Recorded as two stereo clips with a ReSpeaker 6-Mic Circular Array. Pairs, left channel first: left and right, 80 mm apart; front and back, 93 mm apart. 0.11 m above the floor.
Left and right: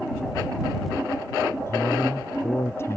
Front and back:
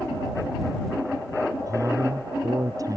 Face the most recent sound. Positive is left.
turn(degrees=140)